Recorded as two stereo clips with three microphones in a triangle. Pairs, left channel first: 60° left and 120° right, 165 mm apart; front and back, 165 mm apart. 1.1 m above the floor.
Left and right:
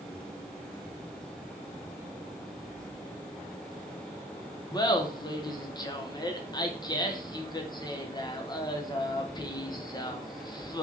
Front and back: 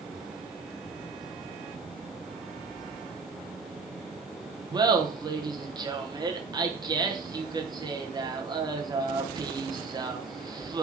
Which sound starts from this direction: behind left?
Laughter, at 4.7 s.